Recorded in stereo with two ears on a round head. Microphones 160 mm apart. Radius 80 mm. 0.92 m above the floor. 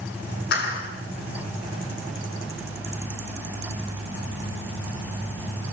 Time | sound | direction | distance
0.5 | a clap | 60° left (ahead or behind) | 8.5 m